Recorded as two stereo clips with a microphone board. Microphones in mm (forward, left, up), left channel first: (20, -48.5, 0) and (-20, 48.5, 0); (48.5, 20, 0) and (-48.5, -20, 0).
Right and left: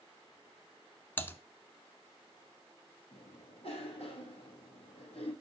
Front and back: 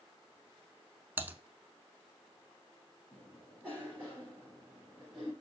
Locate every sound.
1.2 s typing on a keyboard: 110° right, 0.9 m
3.1 s a cough: 60° right, 4.5 m